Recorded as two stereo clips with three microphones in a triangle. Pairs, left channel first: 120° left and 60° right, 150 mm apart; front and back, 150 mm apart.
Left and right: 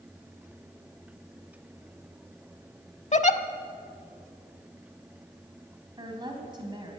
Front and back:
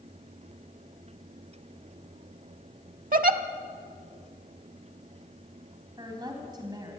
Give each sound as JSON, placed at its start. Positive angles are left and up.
{"t": 3.1, "sound": "a giggle", "azimuth_deg": 155, "distance_m": 0.6}
{"t": 6.0, "sound": "a woman speaking", "azimuth_deg": -120, "distance_m": 3.0}